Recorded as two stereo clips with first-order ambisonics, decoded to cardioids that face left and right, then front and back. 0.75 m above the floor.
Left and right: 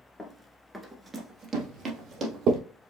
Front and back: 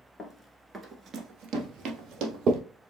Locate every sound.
0.2 s running footsteps: 40° left, 0.7 m; by 2.5 s 150° right, 1.6 m
1.5 s footsteps: 110° right, 1.9 m; by 2.6 s 135° right, 1.8 m